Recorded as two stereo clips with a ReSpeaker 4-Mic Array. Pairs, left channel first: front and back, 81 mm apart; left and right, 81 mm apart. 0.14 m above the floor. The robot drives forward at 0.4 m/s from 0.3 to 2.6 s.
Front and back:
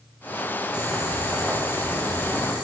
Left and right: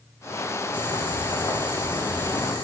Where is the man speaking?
No man speaking in this recording.